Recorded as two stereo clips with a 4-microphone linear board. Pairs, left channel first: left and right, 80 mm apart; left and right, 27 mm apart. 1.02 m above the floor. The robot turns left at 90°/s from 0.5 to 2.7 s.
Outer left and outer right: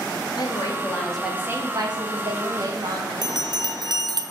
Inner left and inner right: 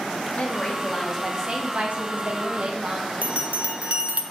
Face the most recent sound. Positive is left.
turn(degrees=-60)  # may be behind; listen again after turning